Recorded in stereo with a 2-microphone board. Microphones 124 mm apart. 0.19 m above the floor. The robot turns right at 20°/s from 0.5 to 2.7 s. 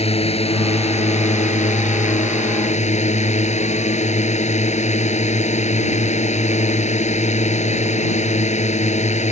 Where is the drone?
60° left; by 9.3 s 105° left.